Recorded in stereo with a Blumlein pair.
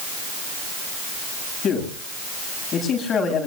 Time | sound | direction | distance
1.6 | a man speaking | 20° left | 8 m